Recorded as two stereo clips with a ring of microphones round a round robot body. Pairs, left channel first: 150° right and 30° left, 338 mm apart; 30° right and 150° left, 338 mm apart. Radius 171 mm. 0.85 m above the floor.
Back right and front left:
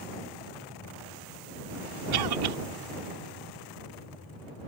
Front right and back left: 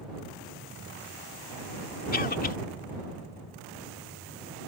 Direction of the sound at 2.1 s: 35° left.